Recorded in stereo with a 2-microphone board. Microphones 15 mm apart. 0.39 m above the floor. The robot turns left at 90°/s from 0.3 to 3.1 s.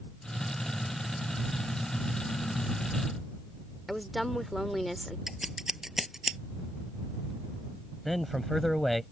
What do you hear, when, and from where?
3.9 s a woman speaking: centre (ahead or behind)
5.3 s scissors: 25° right (ahead or behind)
8.1 s a man speaking: 5° left (ahead or behind)